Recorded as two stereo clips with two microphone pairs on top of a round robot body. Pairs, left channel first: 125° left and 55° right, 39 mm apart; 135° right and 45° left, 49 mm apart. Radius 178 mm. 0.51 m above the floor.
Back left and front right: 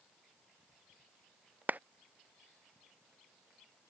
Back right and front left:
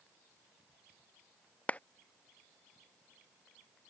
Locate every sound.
1.7 s a clap: 70° right